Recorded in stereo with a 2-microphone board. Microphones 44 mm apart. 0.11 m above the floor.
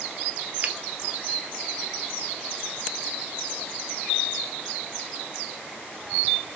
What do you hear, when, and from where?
0.6 s a finger snap: 40° right (ahead or behind), 1.7 m